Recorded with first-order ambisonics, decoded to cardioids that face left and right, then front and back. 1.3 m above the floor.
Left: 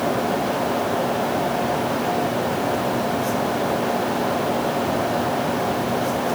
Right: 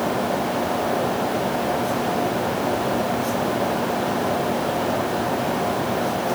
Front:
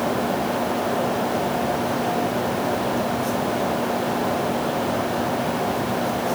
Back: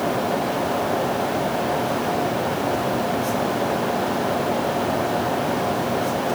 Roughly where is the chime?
No chime in this recording.